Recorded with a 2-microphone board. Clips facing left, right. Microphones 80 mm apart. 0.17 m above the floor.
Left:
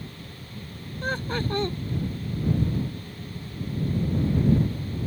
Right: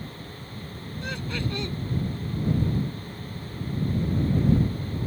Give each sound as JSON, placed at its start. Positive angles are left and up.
{"t": 1.0, "sound": "laughter", "side_deg": 40}